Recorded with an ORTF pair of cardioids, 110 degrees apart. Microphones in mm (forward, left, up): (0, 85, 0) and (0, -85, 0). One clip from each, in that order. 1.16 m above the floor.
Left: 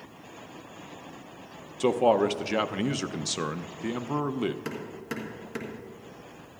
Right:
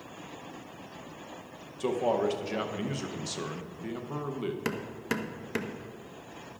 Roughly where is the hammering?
Ahead right.